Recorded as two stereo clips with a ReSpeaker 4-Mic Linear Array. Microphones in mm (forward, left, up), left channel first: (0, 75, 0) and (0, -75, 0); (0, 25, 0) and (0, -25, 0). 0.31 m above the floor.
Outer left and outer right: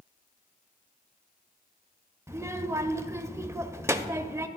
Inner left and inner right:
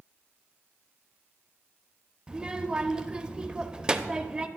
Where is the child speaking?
20° right (ahead or behind), 0.5 m.